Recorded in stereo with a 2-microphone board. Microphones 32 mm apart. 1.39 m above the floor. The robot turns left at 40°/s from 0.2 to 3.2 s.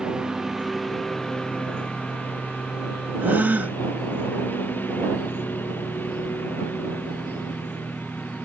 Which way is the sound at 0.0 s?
155° right.